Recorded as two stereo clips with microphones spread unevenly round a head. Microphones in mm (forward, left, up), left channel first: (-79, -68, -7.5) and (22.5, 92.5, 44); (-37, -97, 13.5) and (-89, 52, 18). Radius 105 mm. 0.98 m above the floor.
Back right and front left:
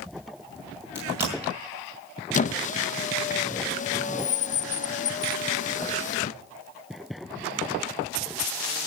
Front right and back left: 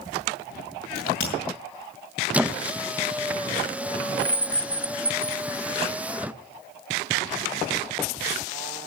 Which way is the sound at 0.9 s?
20° right.